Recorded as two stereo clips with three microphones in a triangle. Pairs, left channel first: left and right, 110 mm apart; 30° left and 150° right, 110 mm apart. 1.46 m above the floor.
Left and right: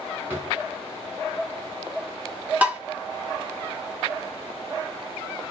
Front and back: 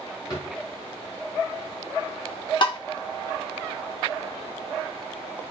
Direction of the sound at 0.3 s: 25° right.